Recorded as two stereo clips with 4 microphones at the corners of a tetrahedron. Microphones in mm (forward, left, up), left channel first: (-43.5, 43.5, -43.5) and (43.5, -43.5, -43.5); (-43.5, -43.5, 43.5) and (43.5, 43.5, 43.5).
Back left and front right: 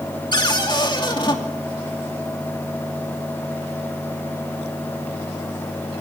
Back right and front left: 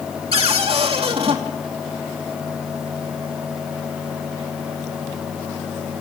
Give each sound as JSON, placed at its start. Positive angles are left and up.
{"t": 0.3, "sound": "a cupboard door", "azimuth_deg": 85, "distance_m": 2.5}